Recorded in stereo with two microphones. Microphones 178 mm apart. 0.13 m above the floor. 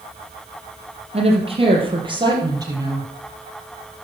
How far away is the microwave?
No microwave in this recording.